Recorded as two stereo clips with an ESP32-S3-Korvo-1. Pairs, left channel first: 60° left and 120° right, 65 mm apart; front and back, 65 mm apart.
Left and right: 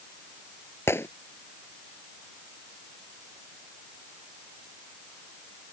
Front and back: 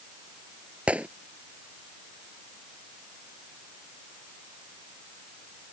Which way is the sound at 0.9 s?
110° left.